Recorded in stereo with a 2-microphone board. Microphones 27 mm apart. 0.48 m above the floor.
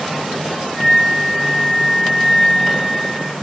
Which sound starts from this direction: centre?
A flute, at 0.8 s.